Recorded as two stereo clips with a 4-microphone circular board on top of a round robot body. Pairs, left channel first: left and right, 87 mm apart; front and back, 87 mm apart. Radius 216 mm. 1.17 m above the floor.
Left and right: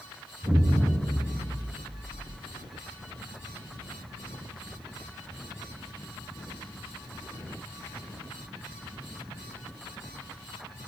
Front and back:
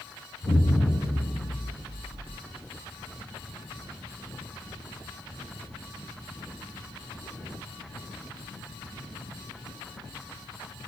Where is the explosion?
155° right, 6.5 m.